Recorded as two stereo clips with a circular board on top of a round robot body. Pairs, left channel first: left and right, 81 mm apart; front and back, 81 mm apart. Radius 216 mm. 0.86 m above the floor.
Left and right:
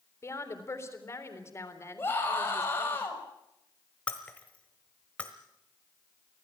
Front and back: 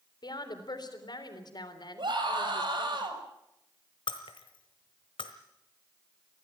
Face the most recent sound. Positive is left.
turn(degrees=15)